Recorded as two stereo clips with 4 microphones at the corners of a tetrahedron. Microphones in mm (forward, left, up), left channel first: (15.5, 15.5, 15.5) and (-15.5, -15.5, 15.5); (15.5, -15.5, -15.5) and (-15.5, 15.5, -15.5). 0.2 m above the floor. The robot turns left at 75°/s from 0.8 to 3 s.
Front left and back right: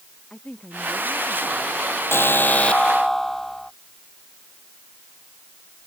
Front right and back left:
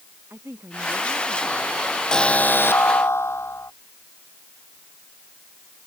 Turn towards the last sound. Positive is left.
turn(degrees=-40)